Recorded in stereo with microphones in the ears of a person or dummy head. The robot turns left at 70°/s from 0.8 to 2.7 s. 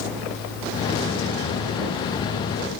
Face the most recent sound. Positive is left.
No sound to turn to.